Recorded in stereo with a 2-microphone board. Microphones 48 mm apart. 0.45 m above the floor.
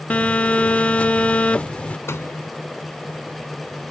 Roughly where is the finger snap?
I don't hear a finger snap.